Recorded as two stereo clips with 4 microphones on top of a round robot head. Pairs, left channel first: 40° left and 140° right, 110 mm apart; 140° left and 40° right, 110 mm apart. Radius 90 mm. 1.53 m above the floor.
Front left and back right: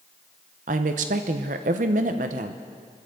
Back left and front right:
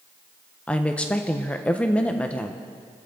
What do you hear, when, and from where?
0.7 s a woman speaking: 140° right, 0.9 m